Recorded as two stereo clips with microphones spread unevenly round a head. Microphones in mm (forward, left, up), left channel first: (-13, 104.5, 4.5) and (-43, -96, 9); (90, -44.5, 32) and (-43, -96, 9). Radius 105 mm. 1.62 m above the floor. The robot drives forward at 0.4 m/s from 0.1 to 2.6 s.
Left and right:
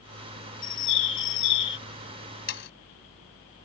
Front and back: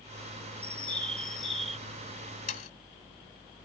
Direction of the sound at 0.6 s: 100° left.